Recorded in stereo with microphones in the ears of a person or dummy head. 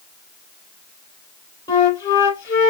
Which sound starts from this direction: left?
A flute, at 1.7 s.